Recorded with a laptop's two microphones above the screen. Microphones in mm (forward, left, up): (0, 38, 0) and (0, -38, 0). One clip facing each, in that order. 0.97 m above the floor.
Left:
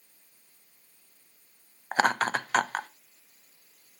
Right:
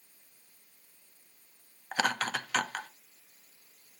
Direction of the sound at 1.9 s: 35° left (ahead or behind).